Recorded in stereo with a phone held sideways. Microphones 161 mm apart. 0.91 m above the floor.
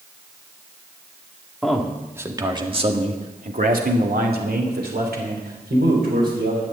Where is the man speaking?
Centre (ahead or behind), 2 m; by 6.6 s 80° right, 4.5 m.